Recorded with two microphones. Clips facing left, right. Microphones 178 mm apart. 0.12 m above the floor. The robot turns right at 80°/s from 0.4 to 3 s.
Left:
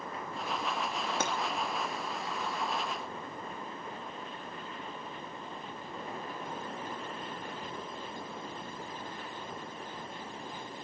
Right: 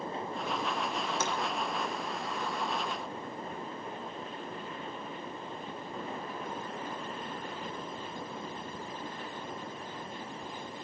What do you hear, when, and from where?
1.2 s breaking glass: 60° left (ahead or behind), 4 m; by 1.3 s 50° left (ahead or behind), 4 m